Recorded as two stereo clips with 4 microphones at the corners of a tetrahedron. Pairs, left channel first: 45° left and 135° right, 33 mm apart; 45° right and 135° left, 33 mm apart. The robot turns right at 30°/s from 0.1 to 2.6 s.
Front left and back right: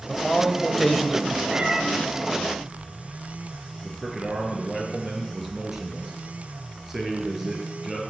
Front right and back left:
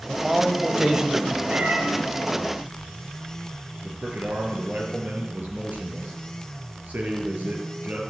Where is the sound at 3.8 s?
145° left, 4 m.